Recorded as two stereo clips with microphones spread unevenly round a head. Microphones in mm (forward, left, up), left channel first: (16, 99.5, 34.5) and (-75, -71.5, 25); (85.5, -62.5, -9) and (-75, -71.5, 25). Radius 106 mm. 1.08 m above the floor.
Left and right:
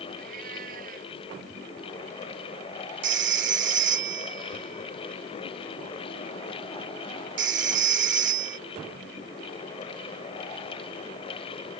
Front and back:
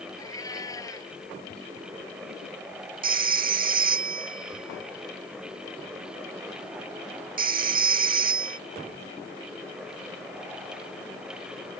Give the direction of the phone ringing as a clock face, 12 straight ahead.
5 o'clock.